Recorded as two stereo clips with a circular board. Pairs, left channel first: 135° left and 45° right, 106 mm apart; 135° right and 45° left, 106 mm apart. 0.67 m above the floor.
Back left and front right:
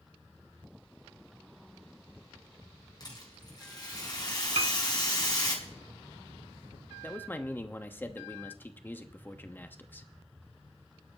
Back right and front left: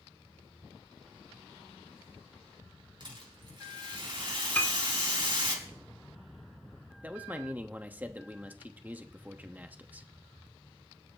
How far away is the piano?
About 1.5 m.